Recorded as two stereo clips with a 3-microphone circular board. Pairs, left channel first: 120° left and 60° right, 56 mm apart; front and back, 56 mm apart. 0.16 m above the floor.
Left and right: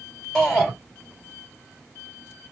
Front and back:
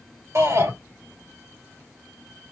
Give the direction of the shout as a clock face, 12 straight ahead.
5 o'clock.